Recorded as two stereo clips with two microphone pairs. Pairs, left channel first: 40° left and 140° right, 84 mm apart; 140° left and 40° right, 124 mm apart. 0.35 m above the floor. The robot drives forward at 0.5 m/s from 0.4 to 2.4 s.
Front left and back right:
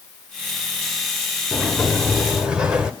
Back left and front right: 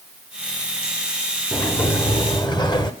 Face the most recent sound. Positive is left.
turn(degrees=145)